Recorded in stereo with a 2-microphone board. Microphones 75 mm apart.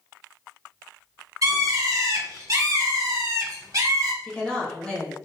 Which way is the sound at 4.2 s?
10° left (ahead or behind).